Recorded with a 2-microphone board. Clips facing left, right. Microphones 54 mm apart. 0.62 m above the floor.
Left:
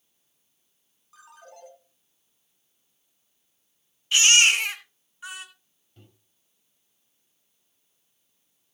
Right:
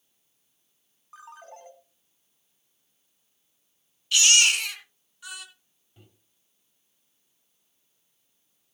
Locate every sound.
1.1 s a ringtone: 35° right (ahead or behind), 3 m
4.1 s a baby crying: 25° left (ahead or behind), 2.5 m
6.0 s a microwave: 10° right (ahead or behind), 2.5 m